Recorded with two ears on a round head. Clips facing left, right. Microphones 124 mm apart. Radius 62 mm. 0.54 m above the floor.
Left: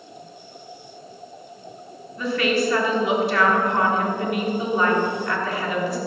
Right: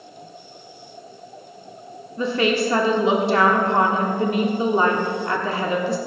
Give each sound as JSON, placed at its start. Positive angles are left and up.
{"t": 2.2, "sound": "a woman speaking", "side_deg": -25, "distance_m": 1.3}